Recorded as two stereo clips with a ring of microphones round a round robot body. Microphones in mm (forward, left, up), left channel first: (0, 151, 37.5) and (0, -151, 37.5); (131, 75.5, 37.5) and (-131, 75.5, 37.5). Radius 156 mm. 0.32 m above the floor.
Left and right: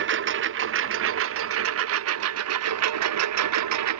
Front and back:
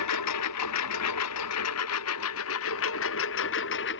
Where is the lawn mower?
35° right; by 4.0 s 55° right.